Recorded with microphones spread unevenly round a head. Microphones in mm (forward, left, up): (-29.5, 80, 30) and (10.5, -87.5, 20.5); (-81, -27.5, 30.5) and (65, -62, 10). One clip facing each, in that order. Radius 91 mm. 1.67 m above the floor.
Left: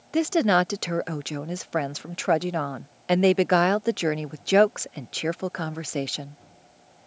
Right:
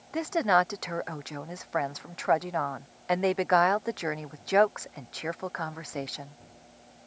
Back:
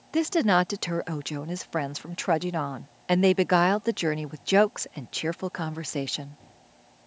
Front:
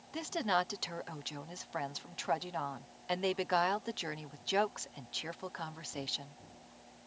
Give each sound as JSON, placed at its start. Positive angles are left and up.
{"t": 0.1, "sound": "a woman speaking", "azimuth_deg": 150}